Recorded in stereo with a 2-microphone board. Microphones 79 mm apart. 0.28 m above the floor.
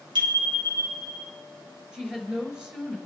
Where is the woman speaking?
10° right (ahead or behind), 4.5 m.